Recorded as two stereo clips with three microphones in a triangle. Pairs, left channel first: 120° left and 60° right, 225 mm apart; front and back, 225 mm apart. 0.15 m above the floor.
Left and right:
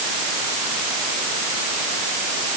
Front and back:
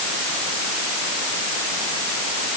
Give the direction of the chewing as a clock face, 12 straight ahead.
No chewing in this recording.